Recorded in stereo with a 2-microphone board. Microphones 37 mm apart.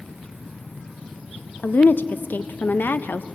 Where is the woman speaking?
65° left (ahead or behind), 0.5 m.